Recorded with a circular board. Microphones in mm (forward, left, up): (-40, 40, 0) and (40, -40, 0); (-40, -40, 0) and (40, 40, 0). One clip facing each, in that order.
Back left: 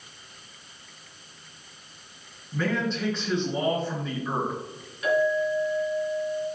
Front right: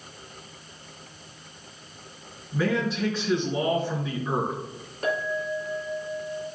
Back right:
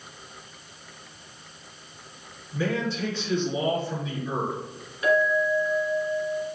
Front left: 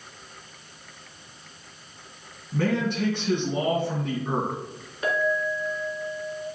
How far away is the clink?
About 2 m.